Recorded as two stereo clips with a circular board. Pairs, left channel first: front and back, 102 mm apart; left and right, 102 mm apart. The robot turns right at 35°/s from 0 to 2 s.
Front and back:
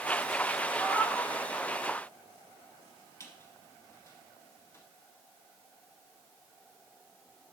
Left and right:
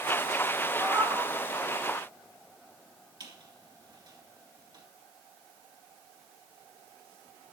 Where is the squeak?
60° right, 2.5 m.